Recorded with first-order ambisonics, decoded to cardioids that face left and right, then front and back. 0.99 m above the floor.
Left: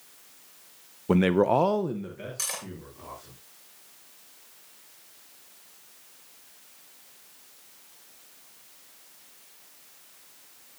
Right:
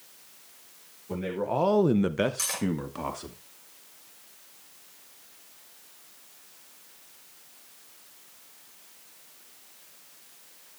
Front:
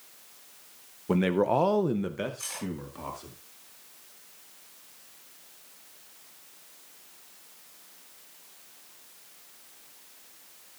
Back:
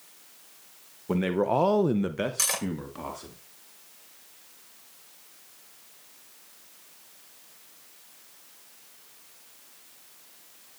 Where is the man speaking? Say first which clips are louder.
Left 8 dB, front 1 dB; 80° left, 0.9 m; by 3.4 s 105° right, 2.5 m.